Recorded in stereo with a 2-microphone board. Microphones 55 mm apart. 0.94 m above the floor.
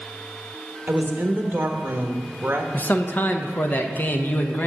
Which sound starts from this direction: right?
A woman speaking, at 0.9 s.